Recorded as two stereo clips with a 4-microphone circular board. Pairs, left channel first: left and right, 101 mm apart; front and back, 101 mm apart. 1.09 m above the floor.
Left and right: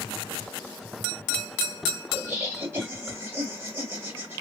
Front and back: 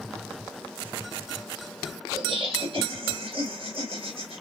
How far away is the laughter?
About 2 m.